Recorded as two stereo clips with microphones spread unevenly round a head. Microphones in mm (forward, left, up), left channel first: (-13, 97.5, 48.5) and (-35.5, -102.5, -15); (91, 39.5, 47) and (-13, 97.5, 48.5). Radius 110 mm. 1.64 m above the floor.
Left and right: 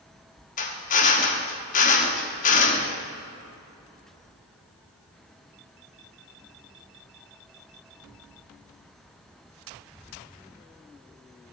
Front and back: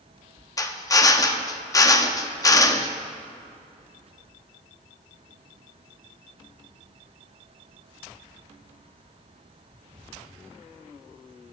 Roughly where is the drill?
Ahead left.